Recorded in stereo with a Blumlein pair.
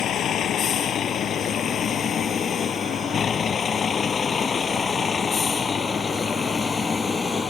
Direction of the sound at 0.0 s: 25° left.